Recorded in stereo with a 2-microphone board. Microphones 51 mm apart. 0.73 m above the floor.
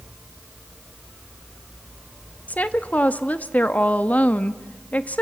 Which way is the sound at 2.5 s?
30° left (ahead or behind).